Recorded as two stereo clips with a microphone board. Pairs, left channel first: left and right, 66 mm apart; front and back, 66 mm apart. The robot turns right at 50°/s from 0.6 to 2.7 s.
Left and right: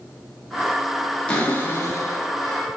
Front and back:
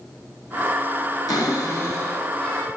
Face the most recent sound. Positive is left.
turn(degrees=85)